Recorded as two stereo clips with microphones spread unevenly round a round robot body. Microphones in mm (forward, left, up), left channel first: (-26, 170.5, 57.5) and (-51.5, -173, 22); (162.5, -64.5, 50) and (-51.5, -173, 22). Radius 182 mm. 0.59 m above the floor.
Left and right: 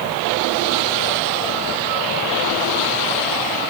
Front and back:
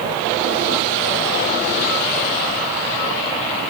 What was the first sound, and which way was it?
Only background noise.